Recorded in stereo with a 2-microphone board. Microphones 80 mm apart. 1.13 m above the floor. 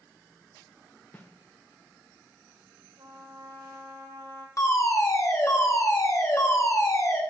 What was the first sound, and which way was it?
A snare drum, 25° left (ahead or behind).